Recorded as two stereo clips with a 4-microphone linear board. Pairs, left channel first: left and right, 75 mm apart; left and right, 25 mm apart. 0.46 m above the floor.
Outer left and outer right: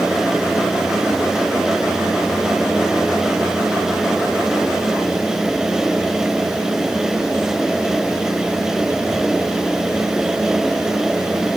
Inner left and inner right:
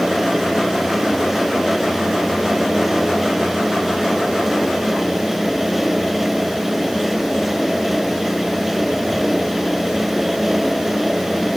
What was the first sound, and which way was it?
Only background noise.